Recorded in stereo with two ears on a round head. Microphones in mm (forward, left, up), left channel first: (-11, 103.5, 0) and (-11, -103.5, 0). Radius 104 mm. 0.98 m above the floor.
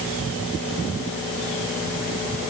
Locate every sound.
Only background noise.